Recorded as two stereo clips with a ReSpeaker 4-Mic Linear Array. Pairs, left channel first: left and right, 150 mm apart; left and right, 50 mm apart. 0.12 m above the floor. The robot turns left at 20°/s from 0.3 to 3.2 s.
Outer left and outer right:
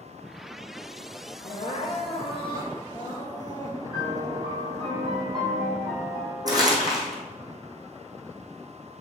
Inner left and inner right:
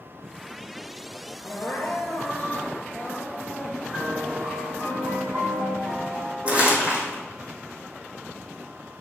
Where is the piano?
35° right (ahead or behind), 2.5 m.